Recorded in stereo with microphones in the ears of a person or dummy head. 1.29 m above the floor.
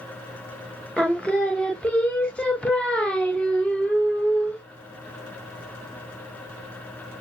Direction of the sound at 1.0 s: 5° left (ahead or behind).